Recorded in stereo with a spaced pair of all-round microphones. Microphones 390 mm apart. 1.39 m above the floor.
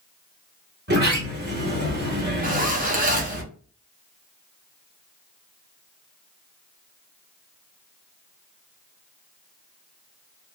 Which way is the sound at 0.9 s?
25° right (ahead or behind).